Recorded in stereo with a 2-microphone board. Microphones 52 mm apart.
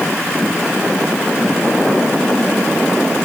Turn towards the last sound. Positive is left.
No sound to turn to.